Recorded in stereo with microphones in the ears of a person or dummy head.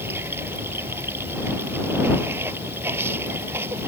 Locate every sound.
0.0 s running water: 15° right (ahead or behind)